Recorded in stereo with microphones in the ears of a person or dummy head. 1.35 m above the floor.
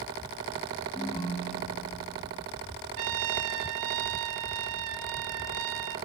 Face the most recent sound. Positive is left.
turn(degrees=-75)  # may be behind; listen again after turning